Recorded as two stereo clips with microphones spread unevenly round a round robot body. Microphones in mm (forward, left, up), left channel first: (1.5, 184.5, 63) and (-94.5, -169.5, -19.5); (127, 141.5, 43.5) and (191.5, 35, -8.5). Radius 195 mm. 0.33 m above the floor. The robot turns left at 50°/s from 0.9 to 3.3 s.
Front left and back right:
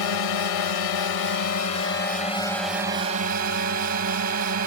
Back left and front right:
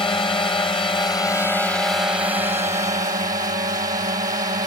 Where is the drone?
65° left; by 4.7 s 55° right.